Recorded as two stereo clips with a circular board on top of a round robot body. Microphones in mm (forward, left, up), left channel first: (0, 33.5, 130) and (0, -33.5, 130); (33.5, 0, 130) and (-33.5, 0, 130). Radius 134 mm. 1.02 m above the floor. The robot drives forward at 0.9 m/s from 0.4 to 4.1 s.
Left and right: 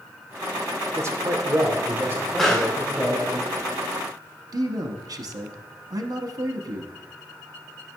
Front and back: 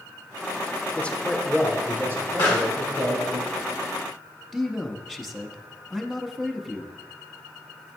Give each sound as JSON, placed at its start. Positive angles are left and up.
{"t": 1.0, "sound": "a man speaking", "azimuth_deg": -60, "distance_m": 1.1}
{"t": 2.4, "sound": "a pop", "azimuth_deg": 10, "distance_m": 1.9}
{"t": 4.5, "sound": "a man speaking", "azimuth_deg": -95, "distance_m": 0.8}